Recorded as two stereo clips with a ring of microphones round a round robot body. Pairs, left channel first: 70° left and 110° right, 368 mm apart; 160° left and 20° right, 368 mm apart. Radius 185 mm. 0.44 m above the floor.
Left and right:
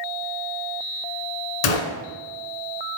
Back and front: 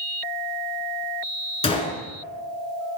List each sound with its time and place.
1.6 s a gunshot: 80° left, 1.2 m